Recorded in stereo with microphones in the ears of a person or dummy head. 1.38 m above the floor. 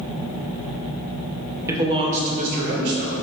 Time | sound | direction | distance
1.7 | a man speaking | 10° right (ahead or behind) | 0.6 m